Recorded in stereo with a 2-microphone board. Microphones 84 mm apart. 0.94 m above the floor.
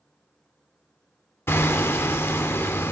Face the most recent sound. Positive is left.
turn(degrees=30)  # may be behind; listen again after turning